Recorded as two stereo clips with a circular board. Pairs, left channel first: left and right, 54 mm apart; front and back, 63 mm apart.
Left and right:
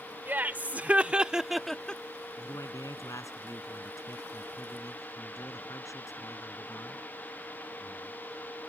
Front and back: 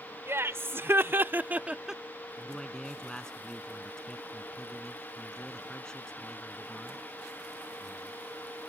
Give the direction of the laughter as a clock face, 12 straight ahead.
5 o'clock.